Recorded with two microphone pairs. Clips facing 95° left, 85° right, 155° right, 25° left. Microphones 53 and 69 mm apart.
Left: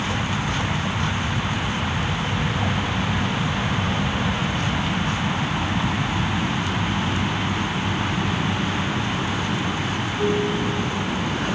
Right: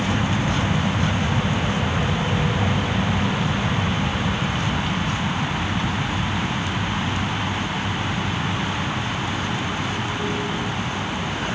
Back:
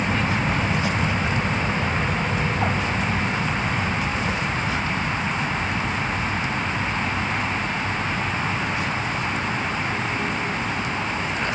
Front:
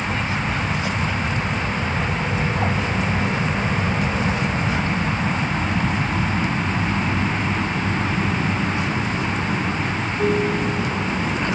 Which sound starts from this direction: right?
An aircraft, at 0.0 s.